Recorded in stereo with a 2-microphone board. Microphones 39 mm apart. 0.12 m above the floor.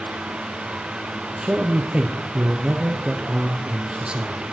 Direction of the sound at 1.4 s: 30° right (ahead or behind).